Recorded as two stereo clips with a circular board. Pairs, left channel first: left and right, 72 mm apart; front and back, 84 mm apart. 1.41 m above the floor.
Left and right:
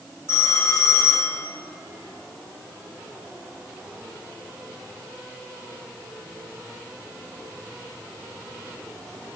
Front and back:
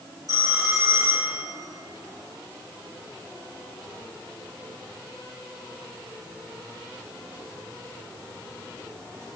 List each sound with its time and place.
0.3 s a phone ringing: 145° left, 3 m